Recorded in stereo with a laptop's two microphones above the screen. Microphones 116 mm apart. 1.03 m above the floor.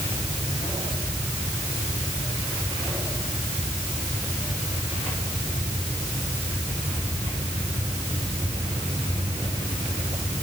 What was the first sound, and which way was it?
Only background noise.